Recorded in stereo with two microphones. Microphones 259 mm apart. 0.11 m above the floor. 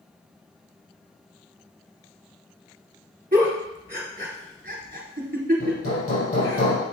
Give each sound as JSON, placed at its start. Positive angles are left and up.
{"t": 3.3, "sound": "a giggle", "side_deg": -35, "distance_m": 1.8}
{"t": 5.6, "sound": "hammering", "side_deg": 60, "distance_m": 3.5}